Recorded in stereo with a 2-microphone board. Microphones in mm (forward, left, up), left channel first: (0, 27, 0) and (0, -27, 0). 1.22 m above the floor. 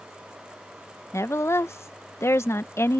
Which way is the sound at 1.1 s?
55° left (ahead or behind).